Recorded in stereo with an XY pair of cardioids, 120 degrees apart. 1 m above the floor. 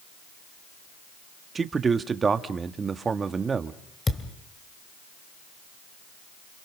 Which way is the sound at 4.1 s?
20° left.